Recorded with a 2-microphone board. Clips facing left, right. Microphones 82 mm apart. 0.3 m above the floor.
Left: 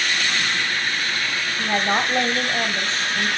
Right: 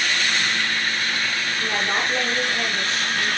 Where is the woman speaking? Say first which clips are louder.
Left 4 dB; 35° left (ahead or behind), 1.1 m.